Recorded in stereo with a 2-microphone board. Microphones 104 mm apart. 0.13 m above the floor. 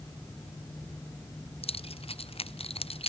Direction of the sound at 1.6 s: 60° left (ahead or behind).